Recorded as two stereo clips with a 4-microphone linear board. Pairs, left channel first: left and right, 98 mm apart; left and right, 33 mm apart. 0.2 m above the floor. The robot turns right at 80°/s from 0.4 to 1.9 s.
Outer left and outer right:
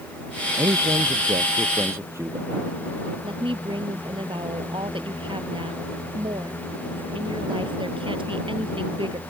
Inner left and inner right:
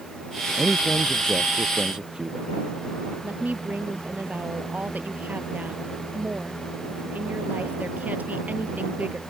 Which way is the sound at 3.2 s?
60° right (ahead or behind).